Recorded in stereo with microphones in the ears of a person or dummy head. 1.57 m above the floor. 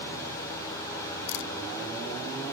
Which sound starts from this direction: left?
A camera shutter, at 1.3 s.